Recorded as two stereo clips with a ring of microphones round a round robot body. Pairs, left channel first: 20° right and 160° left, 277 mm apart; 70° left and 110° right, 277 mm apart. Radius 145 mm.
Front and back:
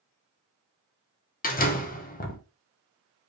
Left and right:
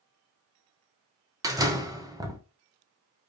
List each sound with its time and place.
1.4 s a door slam: 45° right, 0.7 m